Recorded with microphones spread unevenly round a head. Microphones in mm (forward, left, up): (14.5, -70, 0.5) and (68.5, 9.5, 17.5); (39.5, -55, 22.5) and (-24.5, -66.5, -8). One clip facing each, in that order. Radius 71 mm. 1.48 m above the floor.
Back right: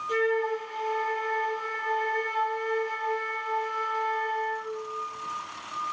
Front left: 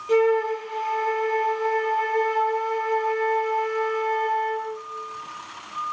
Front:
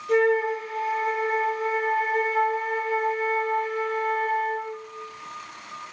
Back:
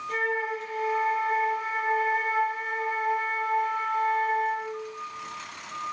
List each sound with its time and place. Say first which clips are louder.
0.1 s a flute: front left 7 dB, front 8 dB; 30° left, 4.5 m